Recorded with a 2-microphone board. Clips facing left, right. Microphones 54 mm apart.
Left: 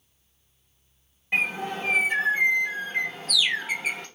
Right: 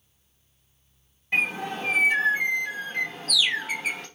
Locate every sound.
1.3 s a bird: 20° left (ahead or behind), 1.2 m